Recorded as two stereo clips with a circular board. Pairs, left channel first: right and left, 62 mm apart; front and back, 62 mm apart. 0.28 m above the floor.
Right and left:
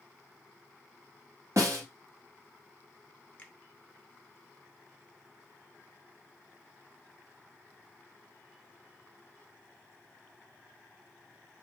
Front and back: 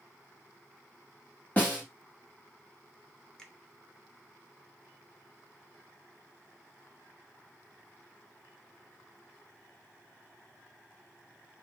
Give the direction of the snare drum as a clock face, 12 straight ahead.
10 o'clock.